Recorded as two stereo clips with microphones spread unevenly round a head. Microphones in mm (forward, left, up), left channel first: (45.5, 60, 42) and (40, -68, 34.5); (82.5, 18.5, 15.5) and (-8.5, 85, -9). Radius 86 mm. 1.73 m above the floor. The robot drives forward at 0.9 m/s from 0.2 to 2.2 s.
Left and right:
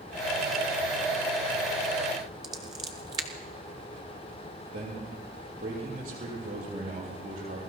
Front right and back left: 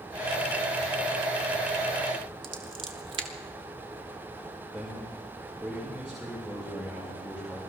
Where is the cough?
No cough in this recording.